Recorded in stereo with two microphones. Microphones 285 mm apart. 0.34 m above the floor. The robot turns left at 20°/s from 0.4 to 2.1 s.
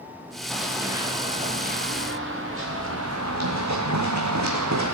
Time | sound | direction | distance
0.5 | running footsteps | centre (ahead or behind) | 2.5 m